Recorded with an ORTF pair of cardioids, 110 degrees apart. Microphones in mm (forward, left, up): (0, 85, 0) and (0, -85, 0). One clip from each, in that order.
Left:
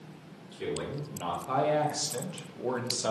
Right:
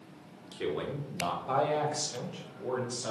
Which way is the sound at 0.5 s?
30° right.